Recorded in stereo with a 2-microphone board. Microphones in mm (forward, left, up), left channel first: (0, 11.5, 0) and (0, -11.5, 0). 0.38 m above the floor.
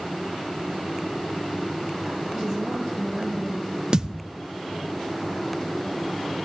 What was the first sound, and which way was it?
A woman speaking, 25° left (ahead or behind).